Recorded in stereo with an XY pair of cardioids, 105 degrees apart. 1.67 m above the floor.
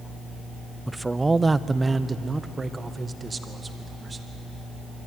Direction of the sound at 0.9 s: 10° right.